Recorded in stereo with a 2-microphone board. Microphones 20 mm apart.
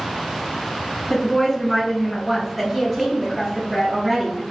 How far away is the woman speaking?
About 1.2 m.